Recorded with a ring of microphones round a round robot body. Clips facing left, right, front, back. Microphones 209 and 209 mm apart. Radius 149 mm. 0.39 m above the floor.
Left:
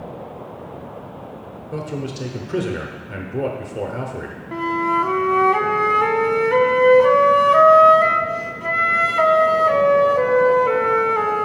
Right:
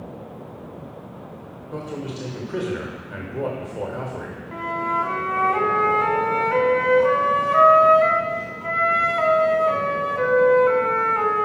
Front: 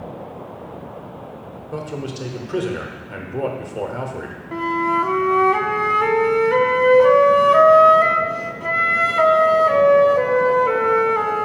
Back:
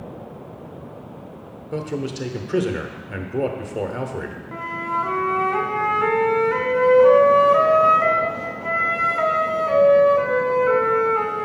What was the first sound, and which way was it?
A man speaking, 130° left.